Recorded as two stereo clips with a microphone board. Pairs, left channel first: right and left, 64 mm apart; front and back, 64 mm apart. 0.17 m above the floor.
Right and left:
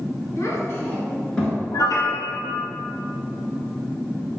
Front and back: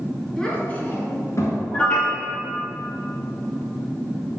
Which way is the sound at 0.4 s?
75° right.